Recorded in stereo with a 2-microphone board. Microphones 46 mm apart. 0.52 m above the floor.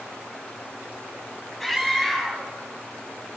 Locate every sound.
1.6 s a scream: 15° left (ahead or behind), 4 m